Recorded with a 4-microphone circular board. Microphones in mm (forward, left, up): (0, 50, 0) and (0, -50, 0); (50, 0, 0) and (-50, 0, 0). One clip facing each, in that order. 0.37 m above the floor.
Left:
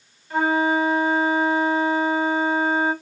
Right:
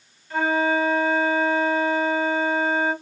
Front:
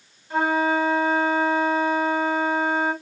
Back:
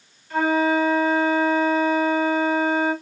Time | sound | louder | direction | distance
0.3 | a flute | left 1 dB, back 2 dB | 35° left | 1.1 m